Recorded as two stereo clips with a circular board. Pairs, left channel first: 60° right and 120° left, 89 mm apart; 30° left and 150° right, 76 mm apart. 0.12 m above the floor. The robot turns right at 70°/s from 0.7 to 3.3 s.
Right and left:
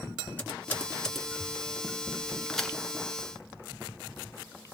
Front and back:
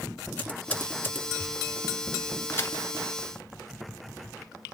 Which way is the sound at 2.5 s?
20° left.